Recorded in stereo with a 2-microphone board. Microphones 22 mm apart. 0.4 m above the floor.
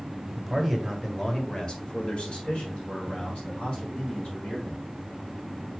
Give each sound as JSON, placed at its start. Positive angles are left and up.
{"t": 0.3, "sound": "a man speaking", "side_deg": -5, "distance_m": 2.5}